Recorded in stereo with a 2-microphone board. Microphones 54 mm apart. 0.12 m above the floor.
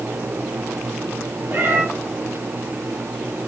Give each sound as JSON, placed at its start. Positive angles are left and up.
{"t": 1.5, "sound": "a cat meowing", "side_deg": -45, "distance_m": 1.1}